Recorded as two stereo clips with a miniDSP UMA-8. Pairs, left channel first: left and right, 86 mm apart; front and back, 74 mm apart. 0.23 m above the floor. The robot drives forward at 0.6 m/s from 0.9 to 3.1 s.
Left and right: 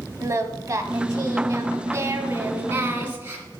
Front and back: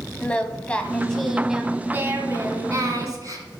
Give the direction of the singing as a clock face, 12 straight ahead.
2 o'clock.